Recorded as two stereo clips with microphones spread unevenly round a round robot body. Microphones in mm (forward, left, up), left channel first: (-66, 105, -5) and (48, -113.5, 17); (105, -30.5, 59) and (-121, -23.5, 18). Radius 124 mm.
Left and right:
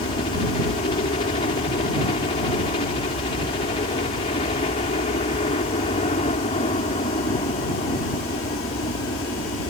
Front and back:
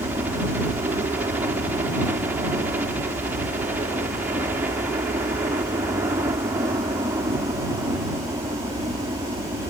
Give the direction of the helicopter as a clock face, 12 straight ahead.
8 o'clock.